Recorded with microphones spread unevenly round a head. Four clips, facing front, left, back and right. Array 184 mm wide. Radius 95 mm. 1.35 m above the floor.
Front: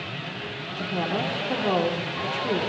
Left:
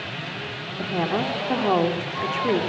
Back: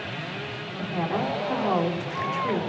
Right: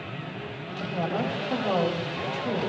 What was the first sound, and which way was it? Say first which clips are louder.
A woman speaking: left 4 dB, even; 75° left.